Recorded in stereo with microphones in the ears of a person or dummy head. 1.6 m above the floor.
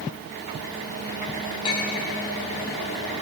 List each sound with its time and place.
1.6 s a clink: 25° left (ahead or behind), 1.9 m